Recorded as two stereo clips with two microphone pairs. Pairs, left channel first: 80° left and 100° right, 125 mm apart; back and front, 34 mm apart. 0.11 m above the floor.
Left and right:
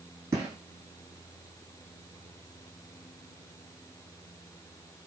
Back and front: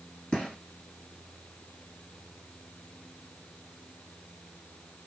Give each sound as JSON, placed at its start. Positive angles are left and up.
{"t": 0.3, "sound": "a gunshot", "azimuth_deg": -145, "distance_m": 2.0}